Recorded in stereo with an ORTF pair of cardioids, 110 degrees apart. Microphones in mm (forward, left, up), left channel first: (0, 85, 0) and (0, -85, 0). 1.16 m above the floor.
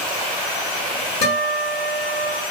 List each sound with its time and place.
1.2 s a guitar: 55° left, 1.8 m